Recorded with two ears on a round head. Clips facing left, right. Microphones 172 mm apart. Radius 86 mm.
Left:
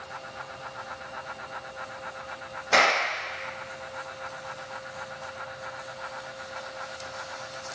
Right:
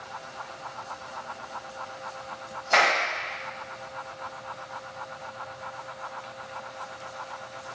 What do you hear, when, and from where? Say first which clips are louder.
2.7 s a clap: left 1 dB; 75° left (ahead or behind), 1.1 m